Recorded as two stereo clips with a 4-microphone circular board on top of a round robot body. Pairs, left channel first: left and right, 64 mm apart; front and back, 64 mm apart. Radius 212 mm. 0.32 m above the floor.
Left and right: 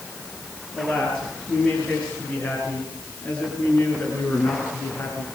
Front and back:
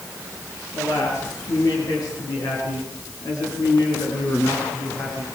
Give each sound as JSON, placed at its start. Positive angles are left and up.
{"t": 0.7, "sound": "a man speaking", "azimuth_deg": 15, "distance_m": 9.5}